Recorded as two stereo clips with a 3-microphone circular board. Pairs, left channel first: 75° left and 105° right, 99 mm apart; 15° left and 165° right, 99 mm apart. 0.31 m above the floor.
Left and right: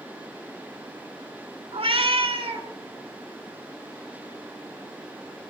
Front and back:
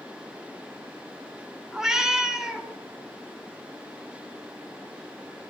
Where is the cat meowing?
80° right, 0.9 m.